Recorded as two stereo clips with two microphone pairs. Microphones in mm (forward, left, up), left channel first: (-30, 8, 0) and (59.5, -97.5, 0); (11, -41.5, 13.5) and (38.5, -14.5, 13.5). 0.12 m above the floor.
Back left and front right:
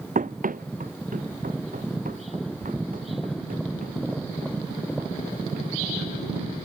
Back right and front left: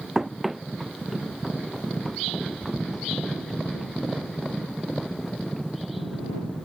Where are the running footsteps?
35° right; by 6.3 s 50° right.